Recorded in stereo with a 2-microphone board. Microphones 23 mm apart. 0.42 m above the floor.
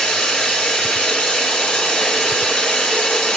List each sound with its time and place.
0.0 s running water: 85° left, 1.8 m